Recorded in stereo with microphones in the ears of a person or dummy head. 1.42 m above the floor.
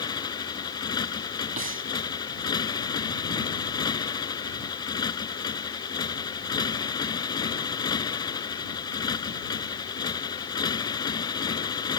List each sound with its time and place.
0.0 s a motorcycle: 25° left (ahead or behind)
1.6 s breathing: 40° right (ahead or behind)